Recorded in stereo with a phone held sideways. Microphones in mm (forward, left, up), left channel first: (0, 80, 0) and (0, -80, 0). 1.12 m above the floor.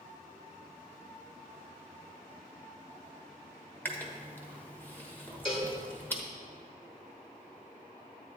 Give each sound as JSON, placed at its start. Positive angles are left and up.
{"t": 3.9, "sound": "chewing", "side_deg": 10, "distance_m": 1.2}
{"t": 5.5, "sound": "a cowbell", "side_deg": 35, "distance_m": 1.8}